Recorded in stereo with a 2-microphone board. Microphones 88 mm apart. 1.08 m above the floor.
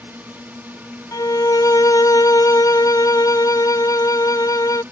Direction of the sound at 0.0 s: 20° right (ahead or behind).